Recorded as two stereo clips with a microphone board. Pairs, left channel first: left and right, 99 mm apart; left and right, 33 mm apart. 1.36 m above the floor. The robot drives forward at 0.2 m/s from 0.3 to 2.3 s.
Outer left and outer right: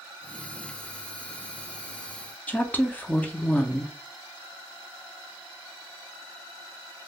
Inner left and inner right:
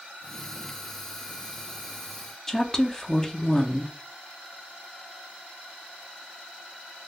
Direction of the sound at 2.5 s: 15° left (ahead or behind).